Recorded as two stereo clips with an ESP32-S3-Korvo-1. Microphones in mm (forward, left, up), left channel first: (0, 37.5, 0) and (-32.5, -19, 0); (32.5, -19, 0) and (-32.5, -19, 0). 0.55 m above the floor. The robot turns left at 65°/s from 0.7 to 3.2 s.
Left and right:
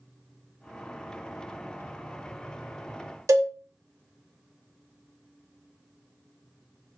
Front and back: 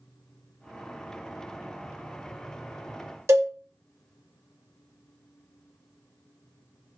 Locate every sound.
3.3 s a cowbell: 140° right, 0.6 m